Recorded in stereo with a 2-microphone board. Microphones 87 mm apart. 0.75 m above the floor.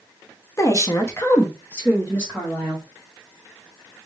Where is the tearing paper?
I don't hear tearing paper.